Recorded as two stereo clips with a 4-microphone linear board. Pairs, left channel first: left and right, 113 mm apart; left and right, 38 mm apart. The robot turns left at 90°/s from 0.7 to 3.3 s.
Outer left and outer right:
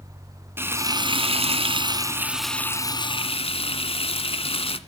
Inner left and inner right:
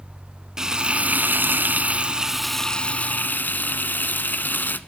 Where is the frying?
25° right, 1.1 m; by 4.8 s 100° left, 1.1 m.